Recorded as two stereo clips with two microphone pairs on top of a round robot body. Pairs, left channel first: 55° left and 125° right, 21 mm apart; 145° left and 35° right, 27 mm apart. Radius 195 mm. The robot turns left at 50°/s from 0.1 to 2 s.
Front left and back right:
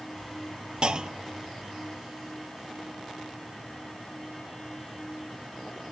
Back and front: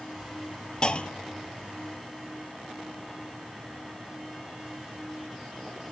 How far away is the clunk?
About 0.8 m.